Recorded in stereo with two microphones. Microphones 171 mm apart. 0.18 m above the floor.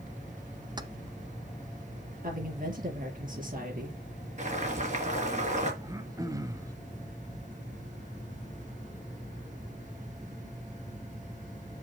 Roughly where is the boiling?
Right.